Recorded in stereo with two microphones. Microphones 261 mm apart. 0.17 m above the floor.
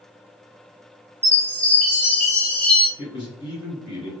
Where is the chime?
5° left (ahead or behind), 0.9 m.